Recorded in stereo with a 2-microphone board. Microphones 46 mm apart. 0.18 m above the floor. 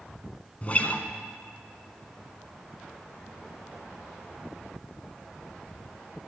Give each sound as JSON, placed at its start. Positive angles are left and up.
{"t": 0.6, "sound": "a guitar", "side_deg": 35, "distance_m": 0.6}